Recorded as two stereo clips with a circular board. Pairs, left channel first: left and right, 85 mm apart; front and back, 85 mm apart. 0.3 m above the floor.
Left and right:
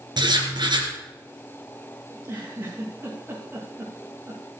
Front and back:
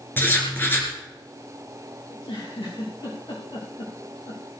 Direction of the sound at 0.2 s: 65° right.